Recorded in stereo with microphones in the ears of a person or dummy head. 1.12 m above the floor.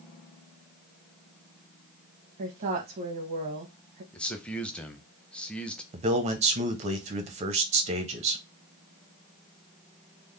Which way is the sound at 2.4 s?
45° right (ahead or behind).